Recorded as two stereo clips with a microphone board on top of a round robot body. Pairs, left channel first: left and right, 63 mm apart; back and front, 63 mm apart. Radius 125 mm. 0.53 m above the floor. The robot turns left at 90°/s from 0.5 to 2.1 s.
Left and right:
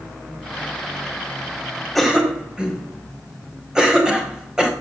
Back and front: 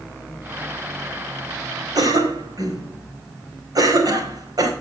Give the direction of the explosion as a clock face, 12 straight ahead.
No explosion in this recording.